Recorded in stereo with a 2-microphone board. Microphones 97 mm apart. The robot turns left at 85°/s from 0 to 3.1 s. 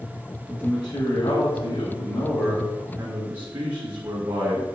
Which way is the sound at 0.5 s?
Straight behind.